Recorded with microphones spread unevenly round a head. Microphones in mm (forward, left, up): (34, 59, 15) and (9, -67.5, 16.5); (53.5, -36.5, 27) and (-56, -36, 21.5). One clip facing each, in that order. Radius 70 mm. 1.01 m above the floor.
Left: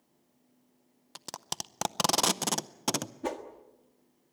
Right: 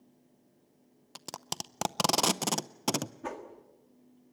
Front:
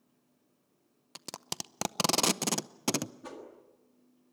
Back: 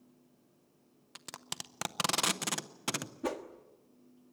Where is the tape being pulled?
15° right, 0.6 m.